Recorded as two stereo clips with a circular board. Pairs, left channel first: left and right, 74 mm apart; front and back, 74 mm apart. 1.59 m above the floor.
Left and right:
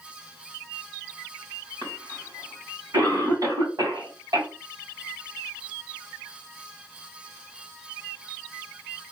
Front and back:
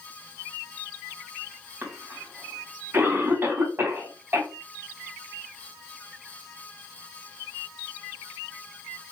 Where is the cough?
120° right, 2.5 m.